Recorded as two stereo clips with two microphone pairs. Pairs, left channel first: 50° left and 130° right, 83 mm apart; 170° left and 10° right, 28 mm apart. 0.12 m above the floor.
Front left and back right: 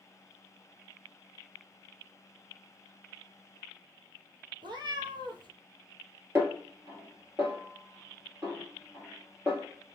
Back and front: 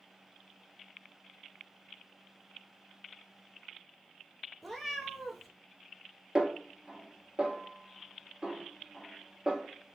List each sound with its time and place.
4.6 s a cat meowing: 100° right, 1.0 m
6.3 s a snare drum: 70° right, 1.6 m